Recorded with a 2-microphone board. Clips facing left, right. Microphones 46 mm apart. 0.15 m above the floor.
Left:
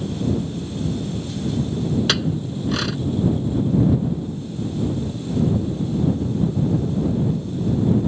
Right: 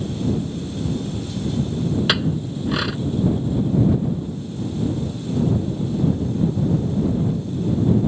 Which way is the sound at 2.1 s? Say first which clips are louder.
Right 1 dB; 10° right (ahead or behind).